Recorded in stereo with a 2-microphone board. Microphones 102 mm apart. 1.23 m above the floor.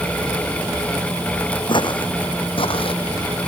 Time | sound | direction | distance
1.7 | footsteps | 55° left (ahead or behind) | ?